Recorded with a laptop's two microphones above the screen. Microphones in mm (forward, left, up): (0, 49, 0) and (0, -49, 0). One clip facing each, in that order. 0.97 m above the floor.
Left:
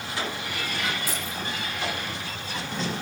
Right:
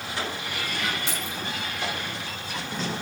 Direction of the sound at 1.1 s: 25° right (ahead or behind).